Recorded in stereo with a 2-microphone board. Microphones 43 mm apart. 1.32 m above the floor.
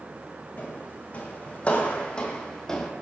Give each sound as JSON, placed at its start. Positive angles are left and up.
{"t": 0.6, "sound": "footsteps", "side_deg": 45, "distance_m": 4.5}